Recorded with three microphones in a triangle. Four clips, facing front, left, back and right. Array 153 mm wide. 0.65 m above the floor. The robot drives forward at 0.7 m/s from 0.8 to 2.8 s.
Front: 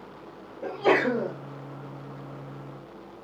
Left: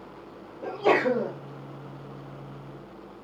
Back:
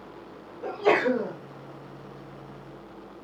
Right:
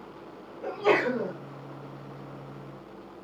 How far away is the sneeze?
About 2 m.